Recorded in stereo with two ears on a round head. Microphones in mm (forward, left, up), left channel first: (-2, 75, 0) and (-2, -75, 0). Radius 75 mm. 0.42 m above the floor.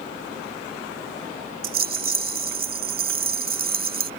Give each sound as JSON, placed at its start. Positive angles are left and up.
{"t": 1.6, "sound": "a rattle", "side_deg": -55}